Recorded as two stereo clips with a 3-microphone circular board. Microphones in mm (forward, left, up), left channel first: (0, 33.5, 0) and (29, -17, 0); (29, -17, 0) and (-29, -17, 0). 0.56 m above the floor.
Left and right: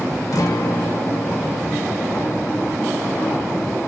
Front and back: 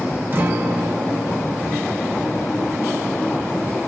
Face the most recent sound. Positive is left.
turn(degrees=130)